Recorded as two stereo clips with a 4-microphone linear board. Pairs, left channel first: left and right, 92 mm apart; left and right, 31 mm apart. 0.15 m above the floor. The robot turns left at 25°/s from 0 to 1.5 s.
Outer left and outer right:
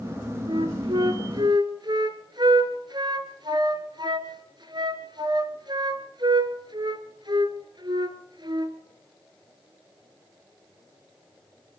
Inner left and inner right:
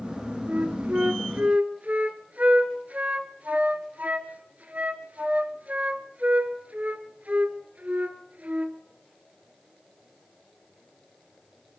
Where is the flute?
60° right (ahead or behind), 1.5 m; by 8.8 s 55° right (ahead or behind), 1.5 m.